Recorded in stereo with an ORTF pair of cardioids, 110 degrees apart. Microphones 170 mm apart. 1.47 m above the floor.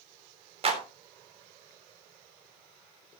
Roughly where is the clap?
Ahead right.